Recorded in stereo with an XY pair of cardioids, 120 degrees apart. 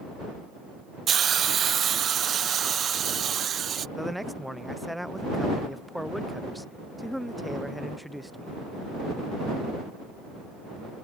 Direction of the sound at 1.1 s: 45° right.